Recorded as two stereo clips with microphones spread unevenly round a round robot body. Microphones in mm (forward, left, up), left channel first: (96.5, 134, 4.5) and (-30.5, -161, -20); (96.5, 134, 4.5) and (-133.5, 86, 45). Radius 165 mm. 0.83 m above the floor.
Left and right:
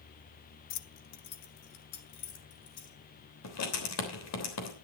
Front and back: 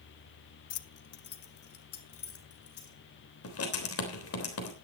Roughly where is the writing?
Ahead left.